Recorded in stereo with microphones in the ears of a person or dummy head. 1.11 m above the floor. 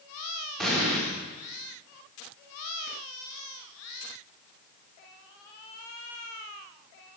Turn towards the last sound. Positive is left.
turn(degrees=0)  # may be behind; listen again after turning